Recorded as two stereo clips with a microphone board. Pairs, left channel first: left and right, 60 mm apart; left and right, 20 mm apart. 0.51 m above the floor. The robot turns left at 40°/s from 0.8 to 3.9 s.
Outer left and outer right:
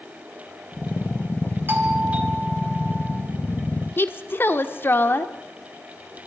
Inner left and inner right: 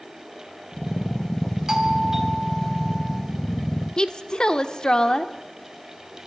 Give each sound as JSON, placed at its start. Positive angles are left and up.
{"t": 1.7, "sound": "a doorbell", "azimuth_deg": -125, "distance_m": 2.5}
{"t": 4.0, "sound": "a woman speaking", "side_deg": 40, "distance_m": 1.1}